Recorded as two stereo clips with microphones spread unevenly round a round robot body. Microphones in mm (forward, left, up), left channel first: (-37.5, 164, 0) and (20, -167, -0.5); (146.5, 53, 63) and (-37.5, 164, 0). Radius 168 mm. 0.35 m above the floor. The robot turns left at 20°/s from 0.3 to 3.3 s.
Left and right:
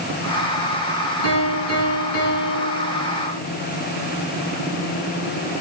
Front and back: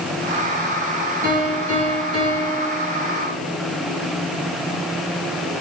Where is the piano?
105° left, 4 m; by 3.3 s 65° left, 4 m.